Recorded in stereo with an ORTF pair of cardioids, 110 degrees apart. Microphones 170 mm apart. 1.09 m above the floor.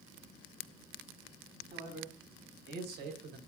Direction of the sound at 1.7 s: 65° right.